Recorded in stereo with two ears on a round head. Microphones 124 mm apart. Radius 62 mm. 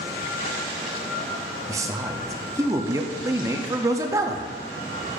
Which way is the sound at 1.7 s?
20° right (ahead or behind).